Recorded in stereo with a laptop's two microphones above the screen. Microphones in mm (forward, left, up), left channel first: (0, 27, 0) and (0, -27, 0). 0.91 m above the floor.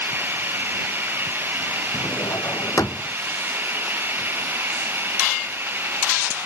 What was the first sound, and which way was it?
Running water, 40° right (ahead or behind).